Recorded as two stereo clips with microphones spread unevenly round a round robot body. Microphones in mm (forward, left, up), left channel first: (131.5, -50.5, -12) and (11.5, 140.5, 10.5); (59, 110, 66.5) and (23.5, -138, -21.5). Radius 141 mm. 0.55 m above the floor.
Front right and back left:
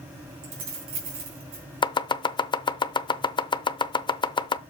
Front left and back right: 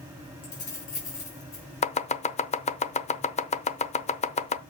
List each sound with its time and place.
0.4 s keys jangling: 150° left, 3 m
1.8 s chopping: 15° left, 0.6 m